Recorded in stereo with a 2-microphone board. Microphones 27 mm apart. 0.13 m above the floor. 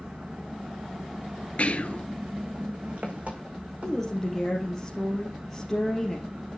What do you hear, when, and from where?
0.0 s an engine running: 50° right (ahead or behind), 3 m
1.6 s whispering: 55° left (ahead or behind), 1.7 m
3.8 s a woman speaking: 10° left (ahead or behind), 3.5 m